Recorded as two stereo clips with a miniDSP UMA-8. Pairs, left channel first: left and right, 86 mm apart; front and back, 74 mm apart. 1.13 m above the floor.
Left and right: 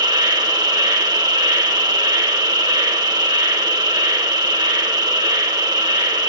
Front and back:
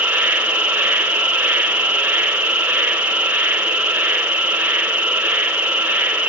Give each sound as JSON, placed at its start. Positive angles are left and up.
{"t": 0.0, "sound": "an insect", "azimuth_deg": -110, "distance_m": 1.4}